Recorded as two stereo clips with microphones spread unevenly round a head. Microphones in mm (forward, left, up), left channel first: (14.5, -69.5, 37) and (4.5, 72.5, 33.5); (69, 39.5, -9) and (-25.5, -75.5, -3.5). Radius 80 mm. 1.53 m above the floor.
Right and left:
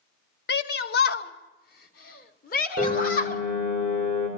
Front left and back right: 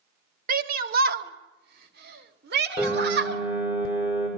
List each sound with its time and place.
0.5 s a shout: 100° right, 2 m; by 3.4 s 120° right, 3.5 m
2.8 s a piano: 55° right, 6.5 m